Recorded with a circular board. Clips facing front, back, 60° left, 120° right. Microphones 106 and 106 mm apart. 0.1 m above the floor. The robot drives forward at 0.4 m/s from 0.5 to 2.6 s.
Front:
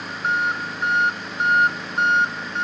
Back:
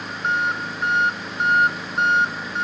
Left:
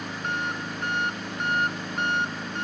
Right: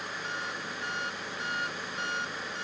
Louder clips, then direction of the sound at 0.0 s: Even, left 7 dB; 90° left.